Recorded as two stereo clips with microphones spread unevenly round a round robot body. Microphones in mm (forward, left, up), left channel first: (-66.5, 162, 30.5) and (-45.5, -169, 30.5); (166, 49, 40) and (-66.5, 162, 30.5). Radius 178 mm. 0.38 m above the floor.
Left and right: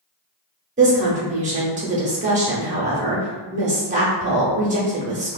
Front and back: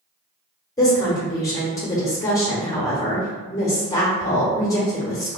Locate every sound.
0.8 s a woman speaking: 85° right, 0.8 m